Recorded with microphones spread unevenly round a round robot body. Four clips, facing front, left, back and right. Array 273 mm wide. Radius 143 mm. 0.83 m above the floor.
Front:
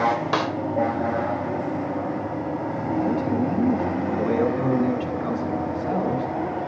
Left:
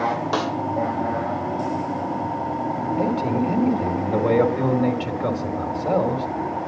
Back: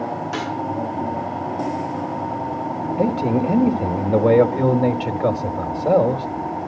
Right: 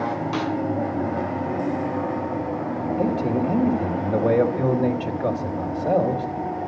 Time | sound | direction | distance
0.3 | a snare drum | 50° left | 2 m
3.0 | a man speaking | 175° right | 2.5 m